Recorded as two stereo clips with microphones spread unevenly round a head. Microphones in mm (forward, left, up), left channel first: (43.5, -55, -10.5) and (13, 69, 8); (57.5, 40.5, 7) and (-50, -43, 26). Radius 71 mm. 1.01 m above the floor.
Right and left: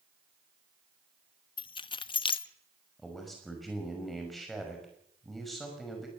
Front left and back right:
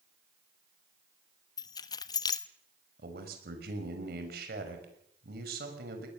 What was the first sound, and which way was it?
Keys jangling, 25° right.